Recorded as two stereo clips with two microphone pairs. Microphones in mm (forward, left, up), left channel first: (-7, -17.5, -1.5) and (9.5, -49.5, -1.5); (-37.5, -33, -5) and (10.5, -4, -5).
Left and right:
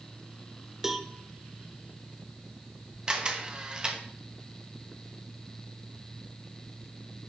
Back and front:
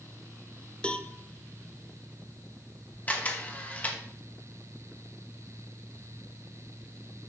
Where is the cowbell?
120° right, 0.6 m.